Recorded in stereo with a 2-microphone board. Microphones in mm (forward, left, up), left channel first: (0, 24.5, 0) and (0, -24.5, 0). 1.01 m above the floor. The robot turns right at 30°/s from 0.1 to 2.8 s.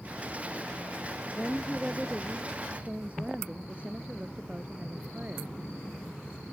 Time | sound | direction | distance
1.4 | a woman speaking | 165° left | ?